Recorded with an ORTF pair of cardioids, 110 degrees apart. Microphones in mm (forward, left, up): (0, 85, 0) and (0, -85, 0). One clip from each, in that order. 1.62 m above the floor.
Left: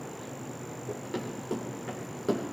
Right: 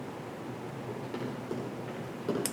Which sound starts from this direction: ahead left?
Running footsteps, at 0.9 s.